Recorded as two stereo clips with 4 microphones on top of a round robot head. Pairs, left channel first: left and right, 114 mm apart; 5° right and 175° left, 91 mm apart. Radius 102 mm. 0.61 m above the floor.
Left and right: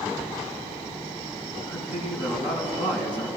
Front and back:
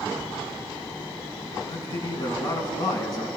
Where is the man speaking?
45° left, 6.5 m.